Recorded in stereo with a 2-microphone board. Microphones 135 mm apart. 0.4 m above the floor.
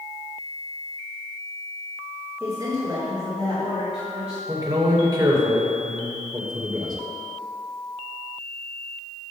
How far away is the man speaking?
About 1.5 m.